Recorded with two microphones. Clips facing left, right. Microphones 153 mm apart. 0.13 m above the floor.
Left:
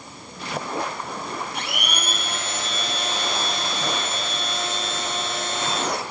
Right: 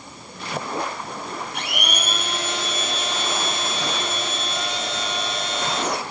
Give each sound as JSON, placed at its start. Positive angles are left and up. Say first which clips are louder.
{"t": 1.5, "sound": "a blender", "louder": "right 1 dB", "side_deg": -55, "distance_m": 6.5}